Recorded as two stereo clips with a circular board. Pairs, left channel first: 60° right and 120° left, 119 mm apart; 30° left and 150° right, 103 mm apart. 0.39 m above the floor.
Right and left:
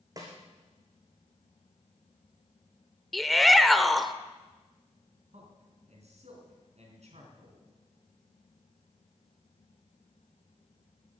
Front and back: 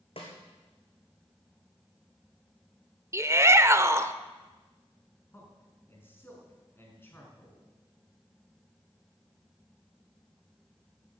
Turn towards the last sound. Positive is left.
turn(degrees=100)